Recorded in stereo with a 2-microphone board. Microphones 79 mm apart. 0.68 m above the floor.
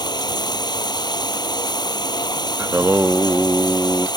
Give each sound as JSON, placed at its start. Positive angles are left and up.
{"t": 0.0, "sound": "running water", "side_deg": 65}
{"t": 2.6, "sound": "singing", "side_deg": -30}